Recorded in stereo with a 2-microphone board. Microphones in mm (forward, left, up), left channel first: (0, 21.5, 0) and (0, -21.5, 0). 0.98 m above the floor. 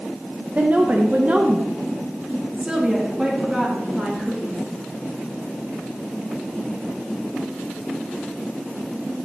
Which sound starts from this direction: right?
A woman speaking, at 0.6 s.